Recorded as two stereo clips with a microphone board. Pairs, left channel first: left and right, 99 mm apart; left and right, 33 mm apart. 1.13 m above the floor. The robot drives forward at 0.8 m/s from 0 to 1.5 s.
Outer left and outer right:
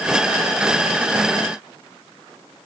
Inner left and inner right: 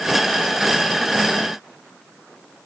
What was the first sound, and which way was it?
Only background noise.